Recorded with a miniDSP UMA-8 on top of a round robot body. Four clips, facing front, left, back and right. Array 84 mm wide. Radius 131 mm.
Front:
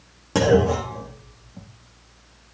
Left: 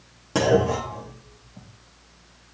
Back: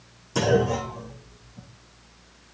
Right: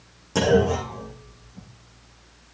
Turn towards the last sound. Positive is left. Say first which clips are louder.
# even, front 4 dB
turn(degrees=25)